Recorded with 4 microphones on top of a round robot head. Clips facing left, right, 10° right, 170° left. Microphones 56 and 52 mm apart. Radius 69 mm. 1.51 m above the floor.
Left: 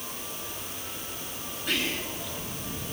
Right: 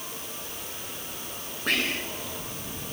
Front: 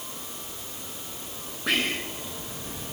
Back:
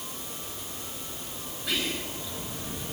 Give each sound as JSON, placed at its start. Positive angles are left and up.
{"t": 1.7, "sound": "whispering", "azimuth_deg": -50, "distance_m": 3.0}